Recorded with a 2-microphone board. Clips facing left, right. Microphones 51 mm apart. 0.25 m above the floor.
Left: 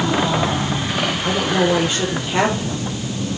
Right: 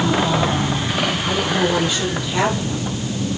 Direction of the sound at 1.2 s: 40° left (ahead or behind).